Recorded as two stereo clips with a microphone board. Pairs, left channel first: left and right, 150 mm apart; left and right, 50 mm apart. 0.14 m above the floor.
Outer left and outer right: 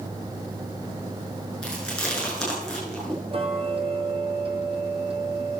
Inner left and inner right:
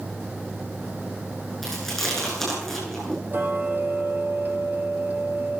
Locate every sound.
1.6 s chewing: 5° left (ahead or behind), 6.5 m
3.3 s ticking: 40° right (ahead or behind), 1.1 m